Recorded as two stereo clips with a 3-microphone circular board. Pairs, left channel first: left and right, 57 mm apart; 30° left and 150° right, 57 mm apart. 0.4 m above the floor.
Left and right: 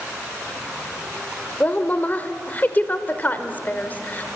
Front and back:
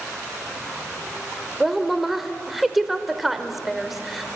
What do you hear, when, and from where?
1.6 s a woman speaking: 125° left, 1.3 m